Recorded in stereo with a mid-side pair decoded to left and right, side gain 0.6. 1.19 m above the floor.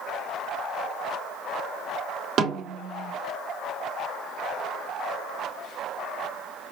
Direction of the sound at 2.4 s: 50° right.